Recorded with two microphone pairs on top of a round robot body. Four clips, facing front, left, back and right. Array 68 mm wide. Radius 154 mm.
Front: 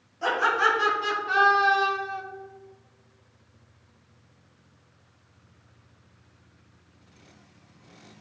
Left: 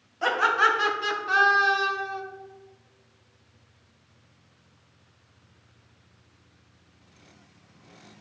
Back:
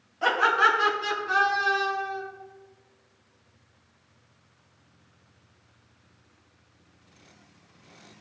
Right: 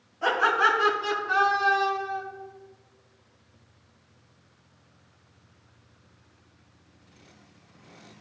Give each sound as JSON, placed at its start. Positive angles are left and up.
{"t": 0.2, "sound": "laughter", "azimuth_deg": 120, "distance_m": 2.5}